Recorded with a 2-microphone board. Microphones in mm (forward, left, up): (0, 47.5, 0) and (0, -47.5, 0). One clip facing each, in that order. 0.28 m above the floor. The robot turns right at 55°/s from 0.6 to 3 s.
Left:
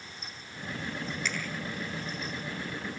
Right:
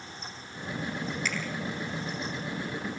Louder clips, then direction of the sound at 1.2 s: Even; centre (ahead or behind).